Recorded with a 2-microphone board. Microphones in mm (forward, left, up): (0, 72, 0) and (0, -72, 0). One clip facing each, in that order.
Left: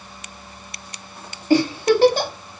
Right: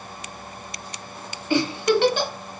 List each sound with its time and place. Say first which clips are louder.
1.5 s a giggle: left 4 dB; 40° left (ahead or behind), 1.0 m